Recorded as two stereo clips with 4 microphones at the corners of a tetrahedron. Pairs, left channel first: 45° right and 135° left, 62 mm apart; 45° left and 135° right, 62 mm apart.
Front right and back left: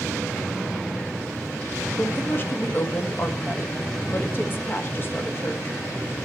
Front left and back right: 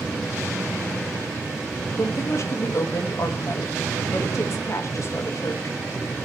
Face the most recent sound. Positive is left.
turn(degrees=10)